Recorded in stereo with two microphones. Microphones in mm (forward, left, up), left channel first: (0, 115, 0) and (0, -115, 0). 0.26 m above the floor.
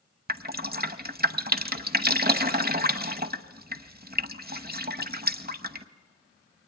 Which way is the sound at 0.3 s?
40° right (ahead or behind).